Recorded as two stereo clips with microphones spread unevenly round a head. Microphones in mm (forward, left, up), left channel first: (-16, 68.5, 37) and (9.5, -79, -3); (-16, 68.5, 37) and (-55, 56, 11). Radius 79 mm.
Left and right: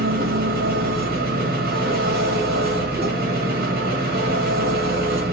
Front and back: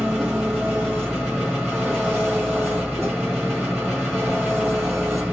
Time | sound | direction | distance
0.0 | an engine running | 90° right | 1.1 m